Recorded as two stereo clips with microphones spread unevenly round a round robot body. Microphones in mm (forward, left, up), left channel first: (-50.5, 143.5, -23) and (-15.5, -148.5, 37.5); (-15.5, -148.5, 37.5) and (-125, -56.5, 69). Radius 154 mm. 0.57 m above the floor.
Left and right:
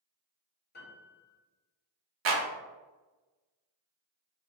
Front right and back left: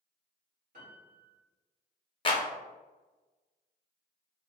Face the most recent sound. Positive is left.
turn(degrees=-35)